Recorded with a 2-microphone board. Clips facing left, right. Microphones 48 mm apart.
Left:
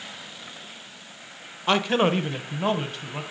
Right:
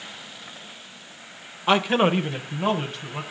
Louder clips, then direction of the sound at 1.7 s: Right 2 dB; 10° right (ahead or behind).